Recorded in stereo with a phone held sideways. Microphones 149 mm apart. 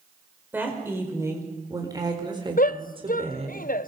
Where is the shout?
70° left (ahead or behind), 0.6 m.